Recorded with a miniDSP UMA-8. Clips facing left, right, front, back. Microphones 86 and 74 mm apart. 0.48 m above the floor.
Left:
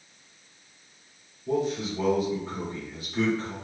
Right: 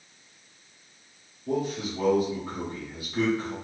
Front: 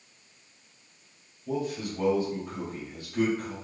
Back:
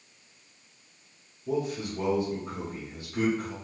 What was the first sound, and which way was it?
A man speaking, 155° right.